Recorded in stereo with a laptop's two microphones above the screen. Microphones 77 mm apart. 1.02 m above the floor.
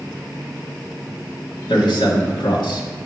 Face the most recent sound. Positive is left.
turn(degrees=80)